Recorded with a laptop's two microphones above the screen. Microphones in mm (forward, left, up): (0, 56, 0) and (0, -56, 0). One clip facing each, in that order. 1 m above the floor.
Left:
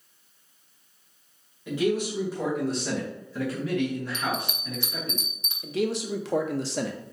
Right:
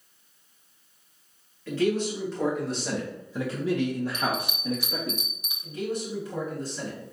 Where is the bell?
10° right (ahead or behind), 0.7 m.